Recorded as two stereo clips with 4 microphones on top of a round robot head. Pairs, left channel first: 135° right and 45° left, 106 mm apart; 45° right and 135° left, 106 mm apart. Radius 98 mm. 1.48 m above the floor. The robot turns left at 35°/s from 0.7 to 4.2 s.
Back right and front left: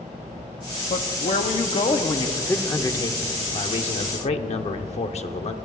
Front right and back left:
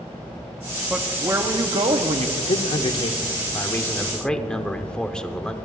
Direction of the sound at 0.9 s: 145° right.